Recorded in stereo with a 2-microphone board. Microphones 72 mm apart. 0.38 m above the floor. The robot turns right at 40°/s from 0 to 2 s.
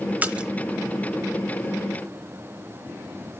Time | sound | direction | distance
0.2 | a splash | 20° right (ahead or behind) | 1.1 m